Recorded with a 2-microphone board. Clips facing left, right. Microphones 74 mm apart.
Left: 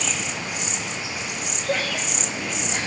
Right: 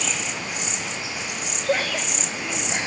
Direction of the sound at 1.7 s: 15° right (ahead or behind).